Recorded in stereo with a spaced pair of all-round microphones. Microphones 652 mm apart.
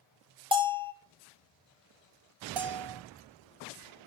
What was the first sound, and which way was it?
A bell, 10° right (ahead or behind).